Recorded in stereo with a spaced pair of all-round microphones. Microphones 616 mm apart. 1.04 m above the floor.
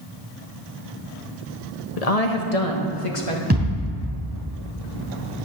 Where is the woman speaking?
70° left (ahead or behind), 1.1 m; by 3.4 s 50° left (ahead or behind), 1.5 m.